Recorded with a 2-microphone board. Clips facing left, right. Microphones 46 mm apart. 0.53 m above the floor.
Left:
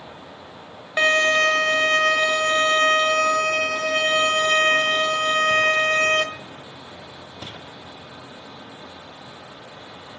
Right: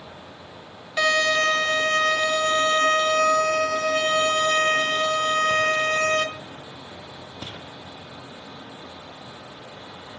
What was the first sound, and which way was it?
A violin, 35° left (ahead or behind).